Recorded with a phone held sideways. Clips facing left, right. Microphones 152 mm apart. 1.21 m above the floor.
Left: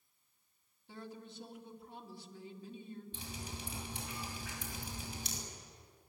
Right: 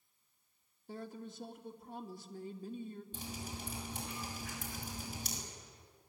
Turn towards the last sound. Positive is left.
turn(degrees=-45)  # may be behind; listen again after turning